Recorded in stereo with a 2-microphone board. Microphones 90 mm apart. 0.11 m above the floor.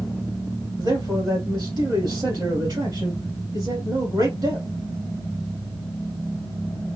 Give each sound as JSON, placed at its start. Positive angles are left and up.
{"t": 0.8, "sound": "a man speaking", "side_deg": -50, "distance_m": 2.5}